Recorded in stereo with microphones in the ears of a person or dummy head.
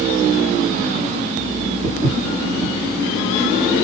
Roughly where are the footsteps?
Centre.